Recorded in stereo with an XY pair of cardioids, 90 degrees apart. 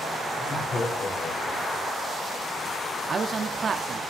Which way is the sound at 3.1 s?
45° right.